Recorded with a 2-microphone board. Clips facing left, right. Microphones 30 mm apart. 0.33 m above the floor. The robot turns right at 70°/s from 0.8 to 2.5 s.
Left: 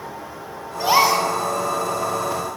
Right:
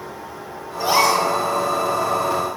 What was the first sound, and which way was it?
A gasp, 145° left.